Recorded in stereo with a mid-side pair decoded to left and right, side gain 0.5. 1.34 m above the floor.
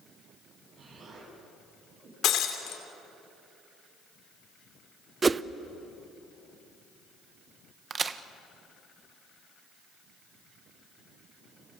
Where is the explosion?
55° right, 9.5 m.